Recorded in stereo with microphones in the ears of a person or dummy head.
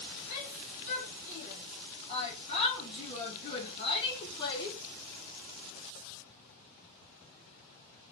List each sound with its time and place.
0.3 s a shout: 40° left (ahead or behind), 3.5 m; by 4.8 s 20° left (ahead or behind), 1.1 m